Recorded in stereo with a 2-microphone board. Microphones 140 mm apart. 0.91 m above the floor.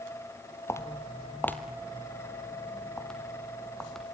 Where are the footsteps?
20° left (ahead or behind), 1.4 m; by 4.0 s 5° left (ahead or behind), 3 m.